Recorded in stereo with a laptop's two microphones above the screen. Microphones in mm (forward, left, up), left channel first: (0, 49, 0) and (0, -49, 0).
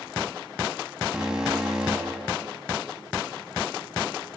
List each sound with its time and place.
1.1 s an alarm: 5° right (ahead or behind), 9.5 m